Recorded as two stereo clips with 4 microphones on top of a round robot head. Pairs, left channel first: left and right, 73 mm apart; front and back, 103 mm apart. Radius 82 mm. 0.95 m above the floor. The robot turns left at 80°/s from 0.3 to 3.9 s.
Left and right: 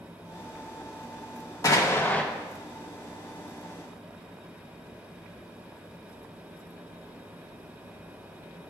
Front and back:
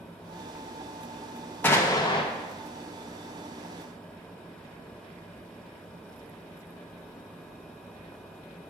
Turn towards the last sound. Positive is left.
turn(degrees=-115)